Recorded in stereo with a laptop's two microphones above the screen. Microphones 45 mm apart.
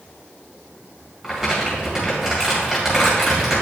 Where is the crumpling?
5° right (ahead or behind), 2 m.